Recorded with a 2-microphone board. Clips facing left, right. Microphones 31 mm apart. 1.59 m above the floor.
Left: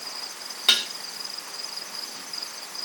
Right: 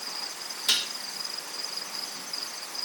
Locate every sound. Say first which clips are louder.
0.7 s dishes clattering: left 5 dB; 65° left (ahead or behind), 1.2 m